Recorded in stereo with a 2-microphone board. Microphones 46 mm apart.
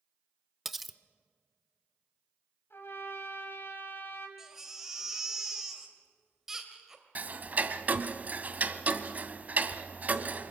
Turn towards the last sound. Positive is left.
turn(degrees=-40)  # may be behind; listen again after turning